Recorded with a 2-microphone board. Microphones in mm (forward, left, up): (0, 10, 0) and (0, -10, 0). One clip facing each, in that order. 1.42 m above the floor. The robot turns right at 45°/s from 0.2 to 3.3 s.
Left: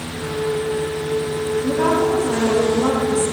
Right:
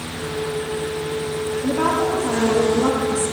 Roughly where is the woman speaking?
Right.